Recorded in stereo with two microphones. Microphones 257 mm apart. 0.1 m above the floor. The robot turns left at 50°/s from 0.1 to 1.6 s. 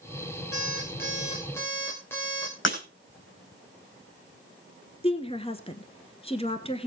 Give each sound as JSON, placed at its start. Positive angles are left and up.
{"t": 0.5, "sound": "an alarm clock", "azimuth_deg": 65, "distance_m": 4.0}
{"t": 2.6, "sound": "breaking glass", "side_deg": 50, "distance_m": 4.0}
{"t": 5.0, "sound": "a woman speaking", "side_deg": 25, "distance_m": 1.2}